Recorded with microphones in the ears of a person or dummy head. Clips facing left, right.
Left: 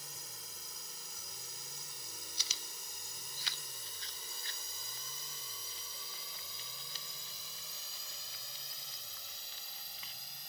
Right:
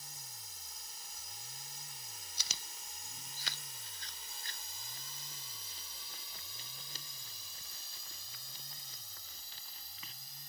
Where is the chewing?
45° right (ahead or behind).